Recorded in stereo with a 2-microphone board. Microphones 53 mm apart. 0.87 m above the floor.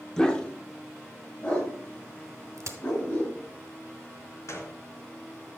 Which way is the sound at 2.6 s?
65° right (ahead or behind).